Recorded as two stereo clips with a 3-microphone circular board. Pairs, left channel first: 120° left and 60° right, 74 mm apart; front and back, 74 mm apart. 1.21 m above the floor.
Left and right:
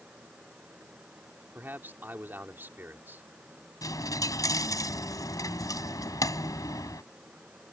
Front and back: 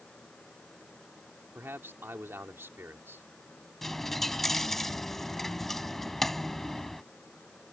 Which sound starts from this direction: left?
A dropped coin, at 3.8 s.